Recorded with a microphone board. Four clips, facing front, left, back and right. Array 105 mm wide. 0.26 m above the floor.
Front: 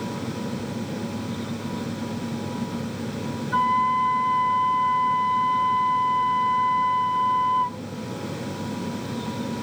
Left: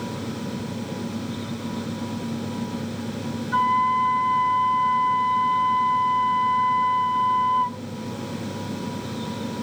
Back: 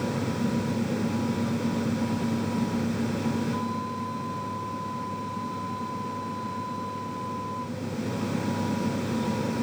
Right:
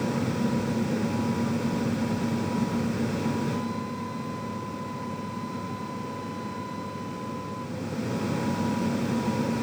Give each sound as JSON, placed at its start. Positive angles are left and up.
{"t": 3.5, "sound": "a flute", "azimuth_deg": 50}